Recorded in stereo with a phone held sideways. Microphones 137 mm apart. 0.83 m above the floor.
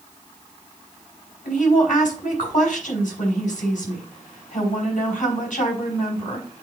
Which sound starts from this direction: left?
A woman speaking, at 1.4 s.